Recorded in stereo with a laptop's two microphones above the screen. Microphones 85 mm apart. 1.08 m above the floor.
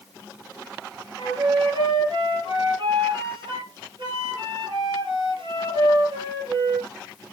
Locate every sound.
1.2 s a flute: 65° right (ahead or behind), 7 m